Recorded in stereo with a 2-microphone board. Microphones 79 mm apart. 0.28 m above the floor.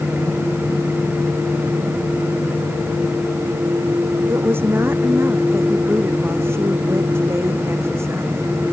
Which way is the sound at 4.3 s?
30° right (ahead or behind).